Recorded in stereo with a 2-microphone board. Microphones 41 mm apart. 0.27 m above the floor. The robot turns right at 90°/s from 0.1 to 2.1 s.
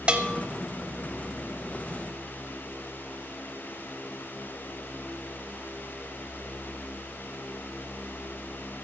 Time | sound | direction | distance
0.1 | a bell | 25° right (ahead or behind) | 0.7 m